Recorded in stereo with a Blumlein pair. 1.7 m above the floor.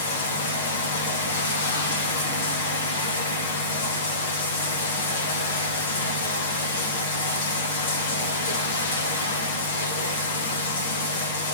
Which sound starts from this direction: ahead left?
Running water, at 0.0 s.